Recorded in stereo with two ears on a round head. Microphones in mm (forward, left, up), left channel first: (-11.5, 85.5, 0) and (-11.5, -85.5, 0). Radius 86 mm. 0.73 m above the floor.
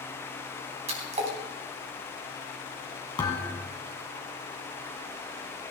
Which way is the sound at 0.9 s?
35° right (ahead or behind).